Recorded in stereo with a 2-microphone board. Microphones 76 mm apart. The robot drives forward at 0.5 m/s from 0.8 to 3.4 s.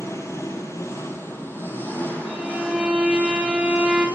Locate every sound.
0.0 s an engine running: 40° left (ahead or behind), 1.1 m; by 4.2 s 20° left (ahead or behind), 2 m
2.3 s a violin: 10° right (ahead or behind), 2 m; by 4.1 s 15° right (ahead or behind), 1.6 m